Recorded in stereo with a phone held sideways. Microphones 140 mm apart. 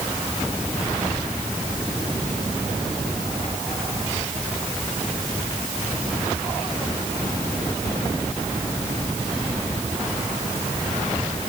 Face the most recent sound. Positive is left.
No sound to turn to.